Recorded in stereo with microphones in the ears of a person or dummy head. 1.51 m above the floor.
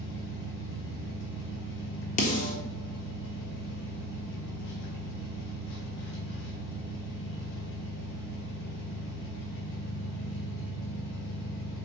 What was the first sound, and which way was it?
An engine running, 65° left (ahead or behind).